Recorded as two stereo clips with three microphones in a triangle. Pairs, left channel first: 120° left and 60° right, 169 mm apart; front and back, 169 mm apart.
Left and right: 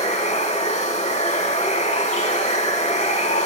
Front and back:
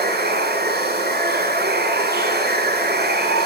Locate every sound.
0.0 s running water: 170° left, 4.5 m